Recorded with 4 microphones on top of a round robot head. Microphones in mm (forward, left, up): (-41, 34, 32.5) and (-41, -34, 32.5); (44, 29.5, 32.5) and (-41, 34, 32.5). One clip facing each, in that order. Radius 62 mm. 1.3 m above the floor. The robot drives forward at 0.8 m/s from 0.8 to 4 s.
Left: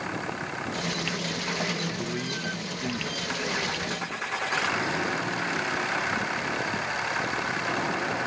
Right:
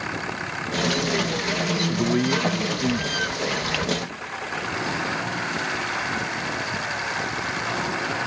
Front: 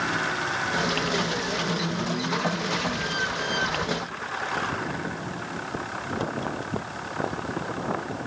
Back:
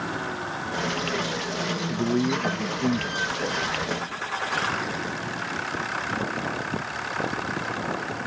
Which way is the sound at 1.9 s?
125° right.